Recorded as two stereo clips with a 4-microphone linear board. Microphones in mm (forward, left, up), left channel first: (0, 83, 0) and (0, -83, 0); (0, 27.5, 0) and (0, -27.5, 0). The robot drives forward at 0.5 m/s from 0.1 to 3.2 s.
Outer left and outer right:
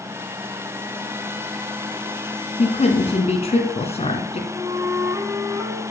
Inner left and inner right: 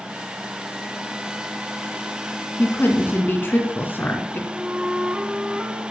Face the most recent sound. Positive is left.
turn(degrees=-20)  # may be behind; listen again after turning